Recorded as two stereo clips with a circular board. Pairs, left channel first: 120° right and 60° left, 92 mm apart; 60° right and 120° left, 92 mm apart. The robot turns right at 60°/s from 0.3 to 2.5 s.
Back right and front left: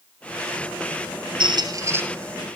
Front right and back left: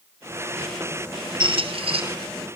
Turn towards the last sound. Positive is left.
turn(degrees=155)